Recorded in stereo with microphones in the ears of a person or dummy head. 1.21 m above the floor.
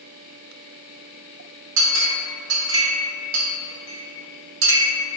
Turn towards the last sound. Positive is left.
turn(degrees=-75)  # may be behind; listen again after turning